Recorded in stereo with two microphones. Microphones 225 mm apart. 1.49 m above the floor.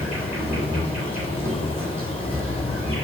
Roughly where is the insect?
Centre.